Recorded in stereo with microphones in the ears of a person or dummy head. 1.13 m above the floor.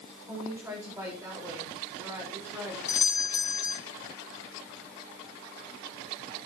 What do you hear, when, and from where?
0.3 s a woman speaking: 20° right (ahead or behind), 4.5 m
2.9 s a doorbell: 25° left (ahead or behind), 0.8 m